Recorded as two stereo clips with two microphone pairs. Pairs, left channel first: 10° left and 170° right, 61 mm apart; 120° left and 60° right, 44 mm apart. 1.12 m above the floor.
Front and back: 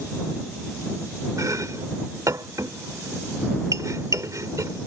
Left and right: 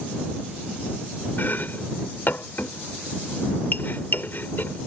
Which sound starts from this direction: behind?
Chopping, at 1.4 s.